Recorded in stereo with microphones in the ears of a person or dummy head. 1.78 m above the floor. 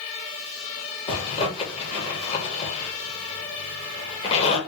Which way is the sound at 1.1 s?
30° left (ahead or behind).